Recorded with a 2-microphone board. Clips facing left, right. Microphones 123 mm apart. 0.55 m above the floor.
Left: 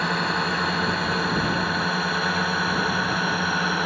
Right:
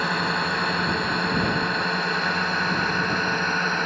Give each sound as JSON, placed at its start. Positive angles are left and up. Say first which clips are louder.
{"t": 0.0, "sound": "a drone", "louder": "even", "side_deg": 0}